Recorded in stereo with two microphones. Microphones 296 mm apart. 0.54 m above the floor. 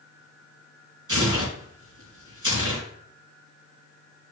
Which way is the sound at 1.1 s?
85° right.